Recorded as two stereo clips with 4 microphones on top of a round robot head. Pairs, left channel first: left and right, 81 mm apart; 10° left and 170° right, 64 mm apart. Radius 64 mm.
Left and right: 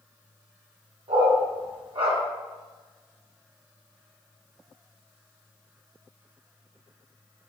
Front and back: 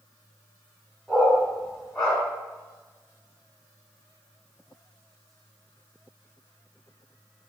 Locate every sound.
1.1 s a dog barking: 80° right, 1.4 m